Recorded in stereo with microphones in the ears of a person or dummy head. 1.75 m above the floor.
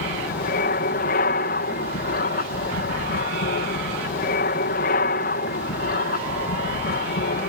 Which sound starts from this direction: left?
An aircraft, at 0.0 s.